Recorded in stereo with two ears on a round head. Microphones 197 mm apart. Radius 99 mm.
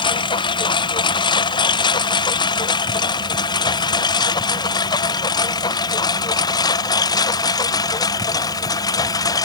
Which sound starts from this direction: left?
A lawn mower, at 0.0 s.